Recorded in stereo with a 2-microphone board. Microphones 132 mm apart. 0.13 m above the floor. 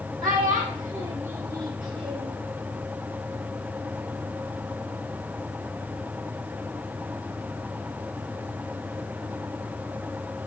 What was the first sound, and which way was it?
A child speaking, 5° right (ahead or behind).